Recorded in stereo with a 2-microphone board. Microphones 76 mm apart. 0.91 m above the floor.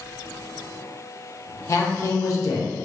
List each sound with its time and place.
1.7 s a man speaking: 45° left (ahead or behind), 0.6 m